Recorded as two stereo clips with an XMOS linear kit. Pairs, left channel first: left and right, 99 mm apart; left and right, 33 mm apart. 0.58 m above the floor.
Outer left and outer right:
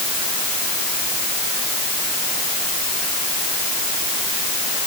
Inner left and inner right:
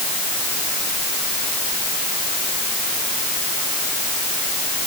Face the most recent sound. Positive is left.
No sound to turn to.